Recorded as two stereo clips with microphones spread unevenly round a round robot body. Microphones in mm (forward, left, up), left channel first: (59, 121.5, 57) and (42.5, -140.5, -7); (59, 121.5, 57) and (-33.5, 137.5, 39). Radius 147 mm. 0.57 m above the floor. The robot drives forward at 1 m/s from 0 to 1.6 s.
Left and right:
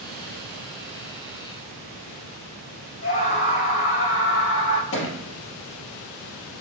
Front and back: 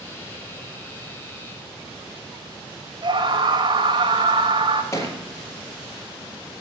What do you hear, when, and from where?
3.0 s a scream: 140° left, 2.5 m
4.9 s a thud: 50° left, 4 m